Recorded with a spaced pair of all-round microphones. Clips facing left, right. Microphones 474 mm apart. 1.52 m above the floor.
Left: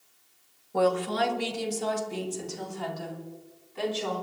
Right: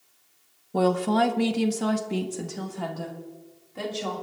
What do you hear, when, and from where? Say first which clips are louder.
0.7 s a woman speaking: right 3 dB; 50° right (ahead or behind), 1.1 m; by 4.2 s 60° right (ahead or behind), 2.5 m